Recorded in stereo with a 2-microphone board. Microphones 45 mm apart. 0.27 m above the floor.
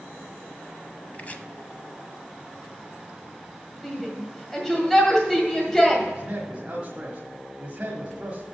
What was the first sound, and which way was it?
Chopping, 30° left (ahead or behind).